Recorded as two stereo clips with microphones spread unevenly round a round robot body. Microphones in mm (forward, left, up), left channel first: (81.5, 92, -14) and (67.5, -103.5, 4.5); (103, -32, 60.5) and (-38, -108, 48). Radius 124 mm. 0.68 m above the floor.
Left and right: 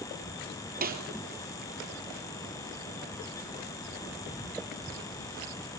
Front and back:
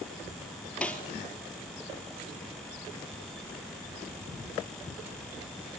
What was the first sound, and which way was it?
A snare drum, 55° right.